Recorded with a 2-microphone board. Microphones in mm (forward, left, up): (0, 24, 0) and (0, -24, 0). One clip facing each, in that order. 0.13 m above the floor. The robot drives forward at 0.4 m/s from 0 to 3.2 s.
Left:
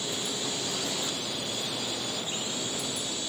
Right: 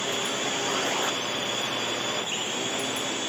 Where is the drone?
45° right (ahead or behind).